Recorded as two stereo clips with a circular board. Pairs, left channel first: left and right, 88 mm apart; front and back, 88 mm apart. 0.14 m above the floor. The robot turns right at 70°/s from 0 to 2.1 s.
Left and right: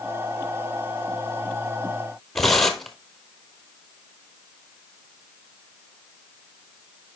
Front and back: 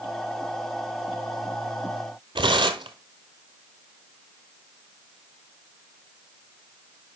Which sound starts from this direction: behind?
Tearing paper, at 2.4 s.